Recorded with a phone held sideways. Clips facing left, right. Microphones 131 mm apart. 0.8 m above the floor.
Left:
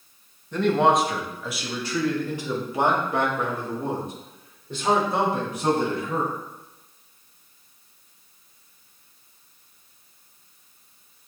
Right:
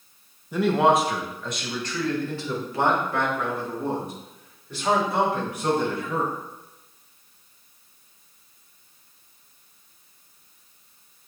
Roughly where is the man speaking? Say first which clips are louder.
Even; centre.